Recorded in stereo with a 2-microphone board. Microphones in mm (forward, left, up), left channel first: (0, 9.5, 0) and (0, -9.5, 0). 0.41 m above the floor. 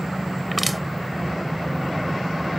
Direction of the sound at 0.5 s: 5° left (ahead or behind).